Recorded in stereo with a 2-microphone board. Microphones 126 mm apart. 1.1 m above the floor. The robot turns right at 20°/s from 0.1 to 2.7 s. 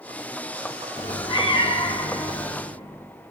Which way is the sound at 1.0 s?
40° left.